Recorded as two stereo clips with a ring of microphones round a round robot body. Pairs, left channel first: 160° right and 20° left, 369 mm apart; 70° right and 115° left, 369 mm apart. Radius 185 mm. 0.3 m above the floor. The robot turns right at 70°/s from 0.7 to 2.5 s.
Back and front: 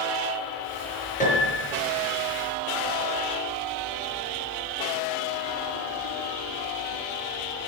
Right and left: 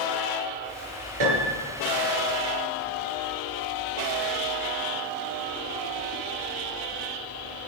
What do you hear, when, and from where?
1.2 s a piano: 130° left, 6 m; by 1.7 s 170° left, 6 m